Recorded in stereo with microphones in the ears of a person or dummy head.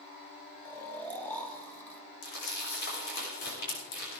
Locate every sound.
0.7 s snoring: 15° left (ahead or behind), 1.7 m
2.2 s crumpling: 60° left (ahead or behind), 5.5 m